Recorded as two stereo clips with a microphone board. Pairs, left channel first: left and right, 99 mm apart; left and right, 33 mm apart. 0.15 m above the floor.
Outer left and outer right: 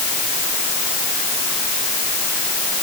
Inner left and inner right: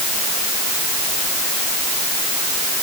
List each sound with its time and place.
Only background noise.